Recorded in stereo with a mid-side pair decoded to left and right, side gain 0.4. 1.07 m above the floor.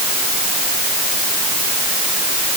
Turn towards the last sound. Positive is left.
No sound to turn to.